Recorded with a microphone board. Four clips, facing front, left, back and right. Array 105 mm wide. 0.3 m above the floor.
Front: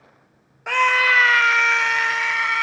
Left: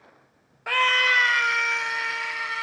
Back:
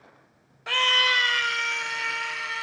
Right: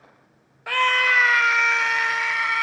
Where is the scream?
15° left, 0.9 m; by 2.6 s 25° right, 2 m.